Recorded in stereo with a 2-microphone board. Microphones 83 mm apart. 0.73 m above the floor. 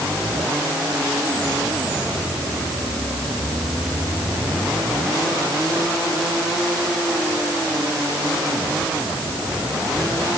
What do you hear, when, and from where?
Only background noise.